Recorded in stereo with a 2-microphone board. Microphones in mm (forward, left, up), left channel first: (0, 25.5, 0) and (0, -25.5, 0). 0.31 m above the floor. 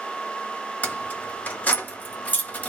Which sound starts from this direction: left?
Keys jangling, at 0.8 s.